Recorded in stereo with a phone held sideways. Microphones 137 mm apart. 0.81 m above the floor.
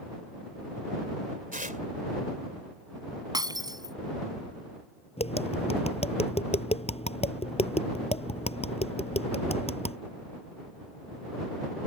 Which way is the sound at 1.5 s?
75° right (ahead or behind).